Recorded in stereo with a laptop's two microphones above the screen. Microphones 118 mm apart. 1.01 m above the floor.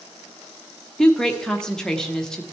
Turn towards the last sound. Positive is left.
turn(degrees=5)  # may be behind; listen again after turning